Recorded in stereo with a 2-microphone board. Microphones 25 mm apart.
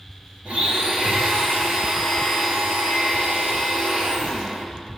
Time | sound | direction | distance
0.5 | a blender | 60° right (ahead or behind) | 3 m